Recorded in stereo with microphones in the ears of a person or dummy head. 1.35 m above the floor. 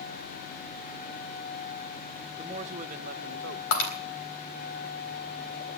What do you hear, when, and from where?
2.4 s a man speaking: 20° right (ahead or behind), 1.0 m; by 3.6 s 60° right (ahead or behind), 1.0 m
3.7 s breaking glass: 70° left (ahead or behind), 3.5 m